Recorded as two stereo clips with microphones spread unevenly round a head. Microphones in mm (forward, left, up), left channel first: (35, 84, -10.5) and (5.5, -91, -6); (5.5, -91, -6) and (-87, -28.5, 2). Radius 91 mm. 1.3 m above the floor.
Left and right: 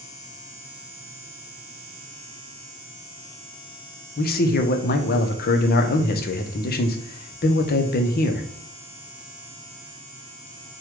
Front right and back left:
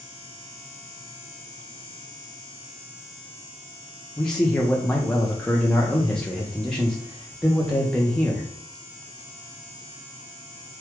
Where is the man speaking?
50° left, 0.7 m.